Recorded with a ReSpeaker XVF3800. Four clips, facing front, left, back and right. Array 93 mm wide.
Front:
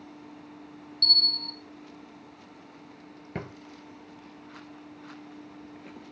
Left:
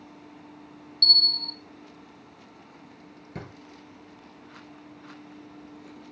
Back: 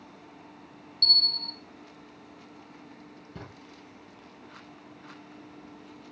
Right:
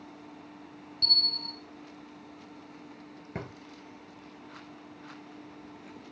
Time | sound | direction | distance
1.0 | a bell | 80° right | 0.6 m
3.4 | a drawer | 30° right | 1.4 m